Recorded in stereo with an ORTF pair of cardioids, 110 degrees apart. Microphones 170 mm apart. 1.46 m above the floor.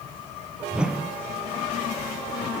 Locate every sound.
0.7 s a whoosh: 5° right, 0.9 m